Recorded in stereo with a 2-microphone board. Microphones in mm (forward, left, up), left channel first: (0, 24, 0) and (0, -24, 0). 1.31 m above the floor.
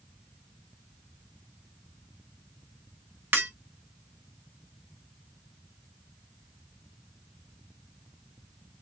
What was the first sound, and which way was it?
Breaking glass, 50° right (ahead or behind).